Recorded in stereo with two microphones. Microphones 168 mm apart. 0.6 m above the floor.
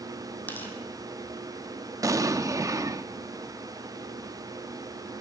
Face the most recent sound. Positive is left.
turn(degrees=-20)  # may be behind; listen again after turning